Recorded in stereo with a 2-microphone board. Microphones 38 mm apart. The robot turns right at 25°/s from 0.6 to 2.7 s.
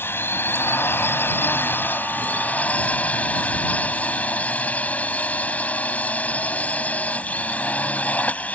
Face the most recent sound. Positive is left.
turn(degrees=140)